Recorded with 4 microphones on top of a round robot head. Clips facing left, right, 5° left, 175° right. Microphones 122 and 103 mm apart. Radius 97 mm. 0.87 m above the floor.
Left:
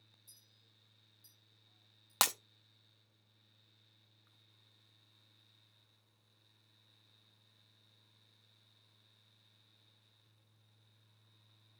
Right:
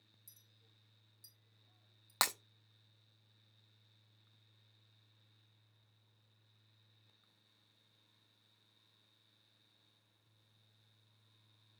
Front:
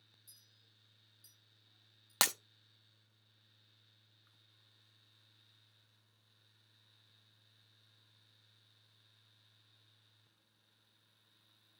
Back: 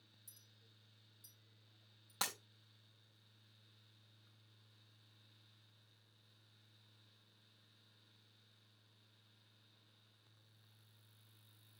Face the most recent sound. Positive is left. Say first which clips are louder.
# left 2 dB, front 8 dB
turn(degrees=10)